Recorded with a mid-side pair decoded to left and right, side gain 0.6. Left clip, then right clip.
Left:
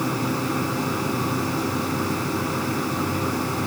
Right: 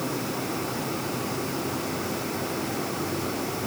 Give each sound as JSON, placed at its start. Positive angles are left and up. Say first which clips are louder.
{"t": 0.0, "sound": "a machine running", "louder": "left 5 dB", "azimuth_deg": 45}